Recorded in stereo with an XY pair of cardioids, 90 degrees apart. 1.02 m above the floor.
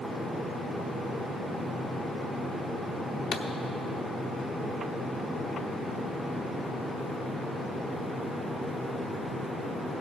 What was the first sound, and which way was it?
A pop, 55° left.